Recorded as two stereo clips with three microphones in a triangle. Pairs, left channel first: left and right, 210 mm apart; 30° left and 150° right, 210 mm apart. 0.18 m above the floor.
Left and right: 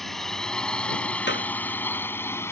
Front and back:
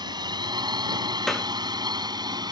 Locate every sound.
0.0 s a drone: straight behind; by 2.5 s 160° left
1.3 s a clap: 120° left